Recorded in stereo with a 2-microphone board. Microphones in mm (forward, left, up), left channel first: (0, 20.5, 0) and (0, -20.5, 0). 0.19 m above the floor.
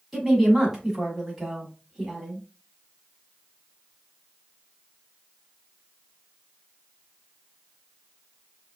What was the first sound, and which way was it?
A woman speaking, 10° right (ahead or behind).